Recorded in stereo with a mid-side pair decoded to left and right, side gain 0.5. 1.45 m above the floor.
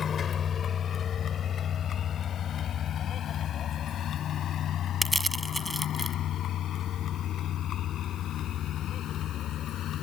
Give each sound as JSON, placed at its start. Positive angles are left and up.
{"t": 0.0, "sound": "a vehicle", "azimuth_deg": 45}
{"t": 5.0, "sound": "crushing", "azimuth_deg": -5}